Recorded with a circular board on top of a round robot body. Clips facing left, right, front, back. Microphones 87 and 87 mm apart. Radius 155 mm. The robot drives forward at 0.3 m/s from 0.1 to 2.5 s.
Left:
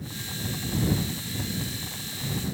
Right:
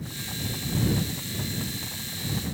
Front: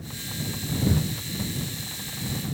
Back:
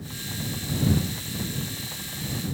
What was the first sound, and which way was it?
Only background noise.